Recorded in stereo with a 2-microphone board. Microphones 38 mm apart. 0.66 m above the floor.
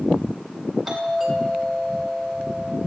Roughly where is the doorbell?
Centre.